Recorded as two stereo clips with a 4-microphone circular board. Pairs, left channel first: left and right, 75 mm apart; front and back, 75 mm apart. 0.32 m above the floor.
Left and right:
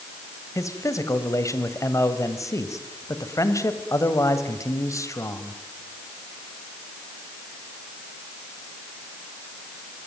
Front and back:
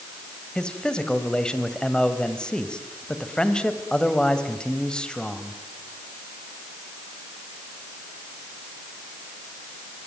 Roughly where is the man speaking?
Left.